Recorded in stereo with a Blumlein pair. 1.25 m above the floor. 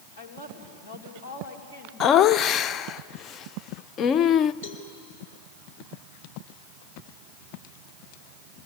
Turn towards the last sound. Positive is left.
turn(degrees=55)